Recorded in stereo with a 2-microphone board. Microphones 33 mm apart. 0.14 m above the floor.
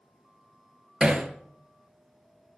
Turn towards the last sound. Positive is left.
turn(degrees=-20)  # may be behind; listen again after turning